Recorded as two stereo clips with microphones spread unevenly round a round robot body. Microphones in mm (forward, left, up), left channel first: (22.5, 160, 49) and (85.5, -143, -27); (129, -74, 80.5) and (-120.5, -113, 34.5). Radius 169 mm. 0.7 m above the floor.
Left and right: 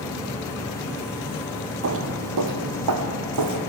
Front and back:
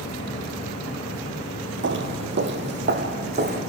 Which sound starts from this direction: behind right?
Footsteps, at 1.8 s.